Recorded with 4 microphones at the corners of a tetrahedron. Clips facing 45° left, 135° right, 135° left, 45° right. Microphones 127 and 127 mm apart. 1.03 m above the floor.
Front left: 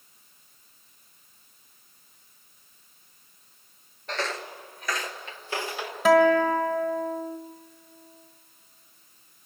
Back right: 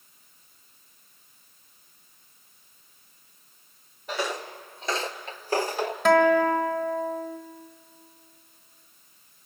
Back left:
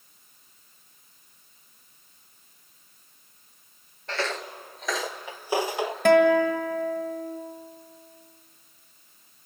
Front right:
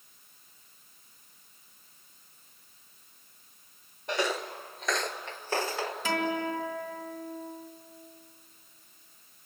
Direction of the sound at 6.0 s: 130° left.